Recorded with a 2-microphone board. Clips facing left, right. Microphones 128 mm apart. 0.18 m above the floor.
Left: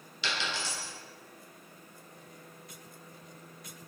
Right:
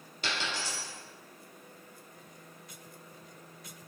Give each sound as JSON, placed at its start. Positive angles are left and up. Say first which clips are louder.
{"t": 0.2, "sound": "a dropped coin", "louder": "even", "side_deg": -50, "distance_m": 1.2}